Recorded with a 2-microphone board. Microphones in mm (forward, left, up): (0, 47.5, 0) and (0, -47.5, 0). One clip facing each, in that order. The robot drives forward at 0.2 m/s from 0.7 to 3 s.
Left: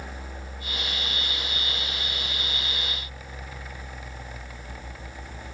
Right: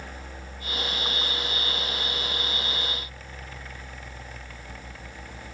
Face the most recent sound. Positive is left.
No sound to turn to.